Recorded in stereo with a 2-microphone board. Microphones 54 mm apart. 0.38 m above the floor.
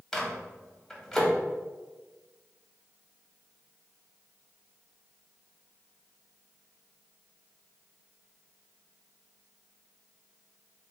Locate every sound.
0.1 s a microwave: 10° left (ahead or behind), 1.1 m